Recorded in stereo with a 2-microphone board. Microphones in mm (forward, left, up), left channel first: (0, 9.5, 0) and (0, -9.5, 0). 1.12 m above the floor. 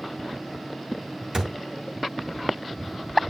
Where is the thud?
35° right (ahead or behind), 4.5 m.